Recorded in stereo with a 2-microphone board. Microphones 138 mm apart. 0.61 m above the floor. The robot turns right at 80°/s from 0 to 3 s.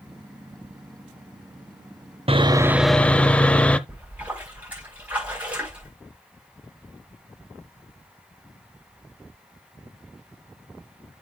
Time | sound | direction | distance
2.3 | sawing | 50° right | 0.6 m
3.9 | a splash | 10° right (ahead or behind) | 5 m